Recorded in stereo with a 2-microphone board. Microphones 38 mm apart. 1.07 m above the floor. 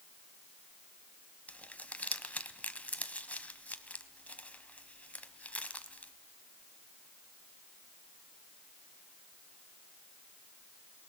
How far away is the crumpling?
About 1.1 m.